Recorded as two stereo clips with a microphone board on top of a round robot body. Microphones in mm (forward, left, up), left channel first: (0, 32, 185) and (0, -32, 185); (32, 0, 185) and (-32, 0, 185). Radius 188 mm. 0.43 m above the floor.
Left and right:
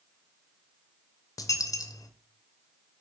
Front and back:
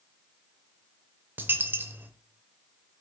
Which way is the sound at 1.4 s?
120° left.